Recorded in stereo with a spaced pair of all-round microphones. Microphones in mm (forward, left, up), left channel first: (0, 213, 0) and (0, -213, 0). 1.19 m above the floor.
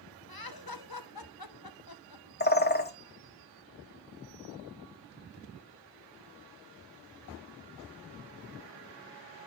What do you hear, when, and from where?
0.3 s laughter: 55° left (ahead or behind), 1.0 m
2.4 s a bird: 25° left (ahead or behind), 0.8 m